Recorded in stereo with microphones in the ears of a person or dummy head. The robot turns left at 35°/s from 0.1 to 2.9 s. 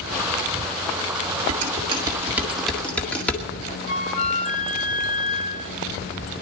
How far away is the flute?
About 2.5 m.